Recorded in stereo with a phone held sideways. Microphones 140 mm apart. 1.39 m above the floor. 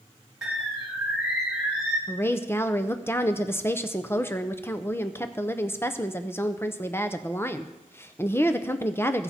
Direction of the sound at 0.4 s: 5° right (ahead or behind).